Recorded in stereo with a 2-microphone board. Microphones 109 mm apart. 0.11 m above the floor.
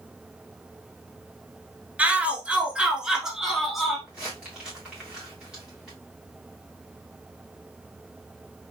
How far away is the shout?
About 1.2 m.